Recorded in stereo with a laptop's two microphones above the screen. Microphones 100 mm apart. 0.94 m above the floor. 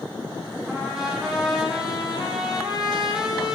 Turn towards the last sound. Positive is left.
turn(degrees=-5)  # may be behind; listen again after turning